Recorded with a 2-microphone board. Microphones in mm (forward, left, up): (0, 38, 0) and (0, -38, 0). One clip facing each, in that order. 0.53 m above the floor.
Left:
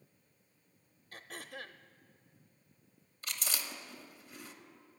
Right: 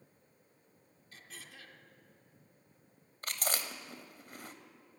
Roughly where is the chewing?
Right.